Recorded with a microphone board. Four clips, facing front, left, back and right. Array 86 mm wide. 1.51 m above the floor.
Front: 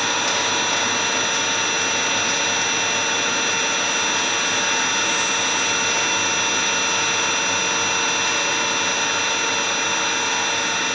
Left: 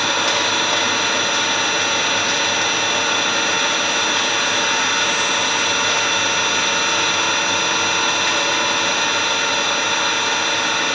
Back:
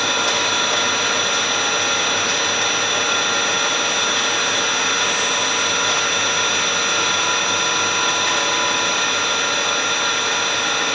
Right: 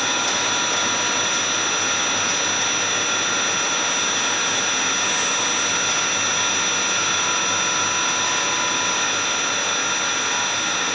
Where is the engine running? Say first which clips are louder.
Left 4 dB, back 2 dB; 90° left, 2.5 m.